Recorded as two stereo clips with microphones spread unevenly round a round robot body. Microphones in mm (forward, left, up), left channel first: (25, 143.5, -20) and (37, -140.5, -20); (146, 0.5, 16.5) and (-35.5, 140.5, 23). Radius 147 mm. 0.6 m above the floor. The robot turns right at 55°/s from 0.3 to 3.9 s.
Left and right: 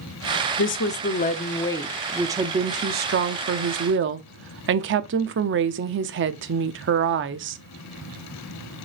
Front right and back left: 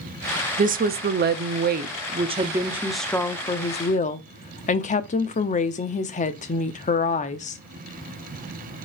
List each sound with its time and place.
0.6 s a woman speaking: 105° left, 0.7 m; by 7.6 s 75° right, 0.7 m